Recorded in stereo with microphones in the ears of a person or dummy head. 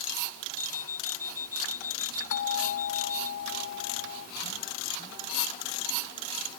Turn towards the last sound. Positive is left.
turn(degrees=70)  # may be behind; listen again after turning